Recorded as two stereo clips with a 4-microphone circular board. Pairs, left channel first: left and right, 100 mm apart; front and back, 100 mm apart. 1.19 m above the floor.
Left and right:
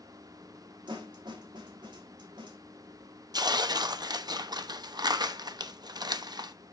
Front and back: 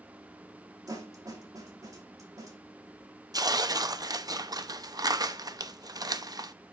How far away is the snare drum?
About 3 m.